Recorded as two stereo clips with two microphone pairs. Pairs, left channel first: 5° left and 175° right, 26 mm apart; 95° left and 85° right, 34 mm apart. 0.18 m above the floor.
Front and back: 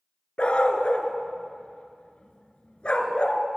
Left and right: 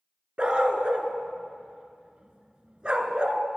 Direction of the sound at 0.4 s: 25° right.